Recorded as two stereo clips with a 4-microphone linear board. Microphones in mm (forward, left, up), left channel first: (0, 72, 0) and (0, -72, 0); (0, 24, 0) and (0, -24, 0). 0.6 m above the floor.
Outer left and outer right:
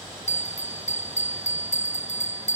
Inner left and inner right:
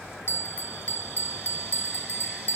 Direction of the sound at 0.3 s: 50° left (ahead or behind).